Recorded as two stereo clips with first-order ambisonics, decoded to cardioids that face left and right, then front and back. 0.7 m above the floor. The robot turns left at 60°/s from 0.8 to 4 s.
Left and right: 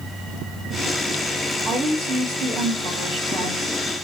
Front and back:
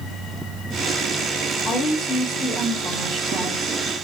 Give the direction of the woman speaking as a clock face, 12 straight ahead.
2 o'clock.